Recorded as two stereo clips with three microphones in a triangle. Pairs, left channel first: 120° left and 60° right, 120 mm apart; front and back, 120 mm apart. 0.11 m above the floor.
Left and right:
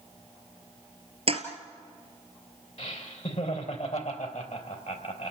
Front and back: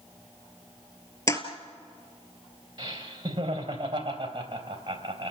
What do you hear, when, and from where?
1.3 s a toilet flushing: 55° right, 2.5 m
2.8 s laughter: 130° left, 3.5 m